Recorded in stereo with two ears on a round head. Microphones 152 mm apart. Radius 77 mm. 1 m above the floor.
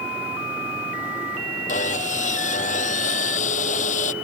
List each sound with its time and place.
1.7 s sawing: 45° left (ahead or behind)